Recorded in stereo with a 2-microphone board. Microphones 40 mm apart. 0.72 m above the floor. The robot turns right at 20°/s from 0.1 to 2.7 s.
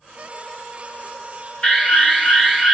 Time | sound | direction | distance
1.6 | an alarm | 30° left (ahead or behind) | 2.5 m